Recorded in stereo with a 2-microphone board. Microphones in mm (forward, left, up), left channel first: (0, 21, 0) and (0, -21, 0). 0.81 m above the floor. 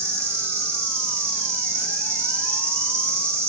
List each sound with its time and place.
0.0 s an insect: 85° right, 0.8 m